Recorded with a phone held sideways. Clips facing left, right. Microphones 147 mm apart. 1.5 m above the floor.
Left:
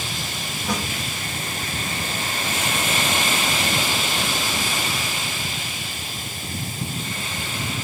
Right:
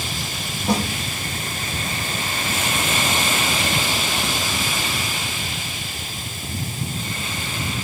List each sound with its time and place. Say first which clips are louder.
0.7 s a snare drum: right 6 dB; 30° right (ahead or behind), 1.7 m